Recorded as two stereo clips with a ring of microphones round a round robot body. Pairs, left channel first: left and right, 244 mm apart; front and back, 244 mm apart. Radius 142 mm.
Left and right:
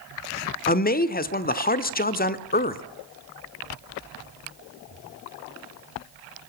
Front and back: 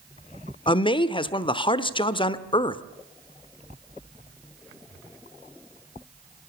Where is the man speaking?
60° left, 1.1 m.